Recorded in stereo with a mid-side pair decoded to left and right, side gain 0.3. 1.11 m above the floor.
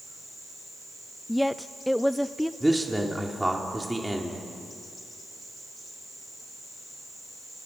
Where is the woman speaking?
5° left, 0.6 m.